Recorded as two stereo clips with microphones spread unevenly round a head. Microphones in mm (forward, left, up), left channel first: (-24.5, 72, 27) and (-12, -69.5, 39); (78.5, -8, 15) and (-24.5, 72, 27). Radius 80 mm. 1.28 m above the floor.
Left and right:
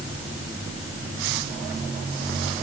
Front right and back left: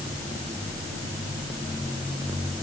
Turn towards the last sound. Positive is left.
No sound to turn to.